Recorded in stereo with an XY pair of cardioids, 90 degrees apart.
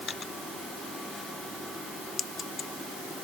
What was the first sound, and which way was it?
Only background noise.